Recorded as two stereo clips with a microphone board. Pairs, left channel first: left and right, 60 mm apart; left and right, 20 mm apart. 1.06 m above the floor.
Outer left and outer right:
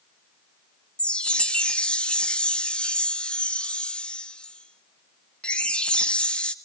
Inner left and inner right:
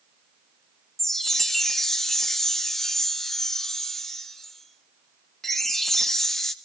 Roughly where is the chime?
Centre.